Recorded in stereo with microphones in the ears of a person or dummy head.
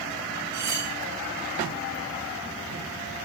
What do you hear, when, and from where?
0.5 s cutlery clinking: 25° right (ahead or behind), 2 m